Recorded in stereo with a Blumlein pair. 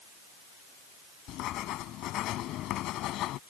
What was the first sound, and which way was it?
Writing, 35° left.